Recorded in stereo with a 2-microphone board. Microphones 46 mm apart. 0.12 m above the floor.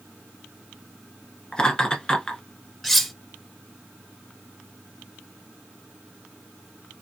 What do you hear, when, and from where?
1.5 s laughter: 20° left (ahead or behind), 1.1 m
2.8 s cutlery clinking: 5° left (ahead or behind), 0.8 m